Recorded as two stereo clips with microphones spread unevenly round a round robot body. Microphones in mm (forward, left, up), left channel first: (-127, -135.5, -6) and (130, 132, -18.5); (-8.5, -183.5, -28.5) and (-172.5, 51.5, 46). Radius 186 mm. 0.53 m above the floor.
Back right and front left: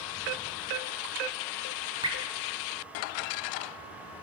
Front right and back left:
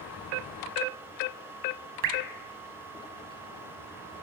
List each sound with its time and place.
2.0 s dripping: 125° left, 1.3 m